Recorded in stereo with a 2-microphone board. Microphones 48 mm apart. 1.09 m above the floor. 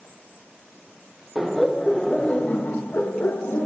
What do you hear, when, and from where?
1.4 s laughter: 5° right (ahead or behind), 0.9 m; by 3.7 s 65° left (ahead or behind), 1.0 m